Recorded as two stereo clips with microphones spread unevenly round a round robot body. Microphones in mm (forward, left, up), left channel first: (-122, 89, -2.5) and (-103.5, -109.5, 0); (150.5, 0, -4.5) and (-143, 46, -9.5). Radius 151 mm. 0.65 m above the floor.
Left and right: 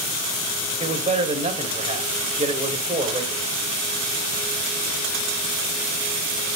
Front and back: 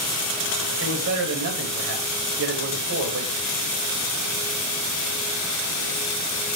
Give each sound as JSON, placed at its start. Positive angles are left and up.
{"t": 0.8, "sound": "a man speaking", "azimuth_deg": -140, "distance_m": 3.0}